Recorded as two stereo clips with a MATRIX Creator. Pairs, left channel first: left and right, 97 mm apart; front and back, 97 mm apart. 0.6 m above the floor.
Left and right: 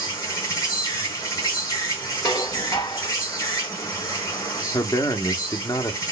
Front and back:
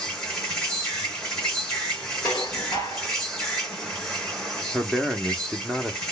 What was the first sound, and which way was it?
An insect, 80° left.